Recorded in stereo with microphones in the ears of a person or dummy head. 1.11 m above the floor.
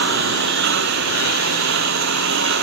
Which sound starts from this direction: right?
A lawn mower, at 0.0 s.